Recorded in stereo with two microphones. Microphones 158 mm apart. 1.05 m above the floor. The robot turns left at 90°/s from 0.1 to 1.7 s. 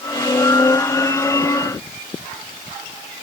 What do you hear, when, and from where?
Only background noise.